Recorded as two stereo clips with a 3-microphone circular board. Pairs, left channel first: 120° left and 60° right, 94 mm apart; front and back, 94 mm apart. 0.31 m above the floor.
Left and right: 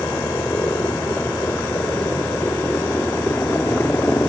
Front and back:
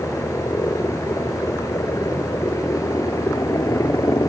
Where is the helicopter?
60° left; by 4.3 s 55° left.